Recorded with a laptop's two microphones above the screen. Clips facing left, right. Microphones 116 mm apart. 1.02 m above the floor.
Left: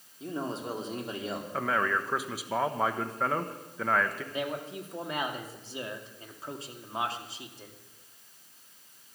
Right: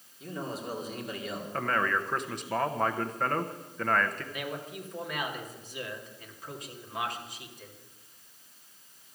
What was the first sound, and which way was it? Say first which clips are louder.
A man speaking: left 2 dB; 30° left (ahead or behind).